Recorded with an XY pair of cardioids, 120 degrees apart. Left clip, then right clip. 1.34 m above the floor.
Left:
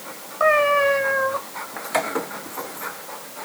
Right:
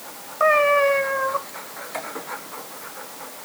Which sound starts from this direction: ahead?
A cat meowing, at 0.4 s.